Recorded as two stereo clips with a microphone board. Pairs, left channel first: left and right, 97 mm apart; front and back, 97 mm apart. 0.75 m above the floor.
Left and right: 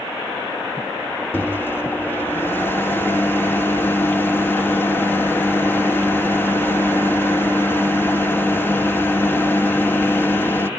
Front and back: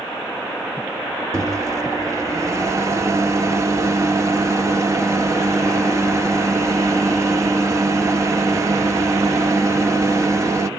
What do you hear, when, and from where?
1.3 s a microwave: 145° left, 0.7 m